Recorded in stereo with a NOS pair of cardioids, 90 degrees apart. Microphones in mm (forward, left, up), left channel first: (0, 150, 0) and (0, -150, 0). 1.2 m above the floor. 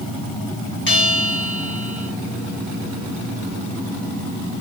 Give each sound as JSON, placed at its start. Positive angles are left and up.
{"t": 0.9, "sound": "a bell", "azimuth_deg": 40, "distance_m": 1.6}